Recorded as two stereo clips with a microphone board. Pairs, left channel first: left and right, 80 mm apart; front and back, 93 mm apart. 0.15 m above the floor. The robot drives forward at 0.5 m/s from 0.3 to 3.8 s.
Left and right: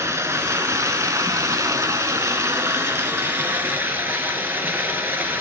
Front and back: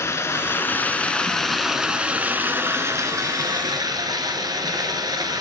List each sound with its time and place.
0.0 s running water: 45° right, 1.3 m; by 5.4 s 150° right, 1.5 m